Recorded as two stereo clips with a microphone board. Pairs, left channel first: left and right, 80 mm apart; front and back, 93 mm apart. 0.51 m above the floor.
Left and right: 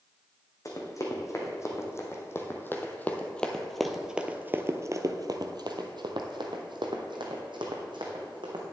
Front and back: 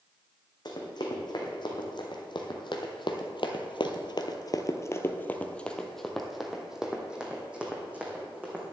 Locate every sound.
0.7 s running footsteps: 40° left, 2 m; by 8.6 s 105° right, 2 m